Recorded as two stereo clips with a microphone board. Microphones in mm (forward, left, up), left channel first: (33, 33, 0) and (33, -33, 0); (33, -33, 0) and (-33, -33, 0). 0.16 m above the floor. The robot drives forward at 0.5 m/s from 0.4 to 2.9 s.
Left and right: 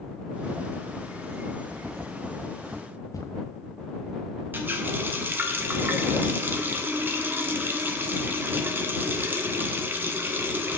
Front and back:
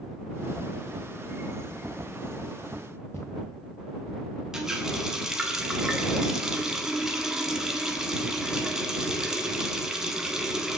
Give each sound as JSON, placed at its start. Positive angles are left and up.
{"t": 3.1, "sound": "footsteps", "azimuth_deg": 55, "distance_m": 0.8}
{"t": 4.5, "sound": "a running tap", "azimuth_deg": -105, "distance_m": 0.9}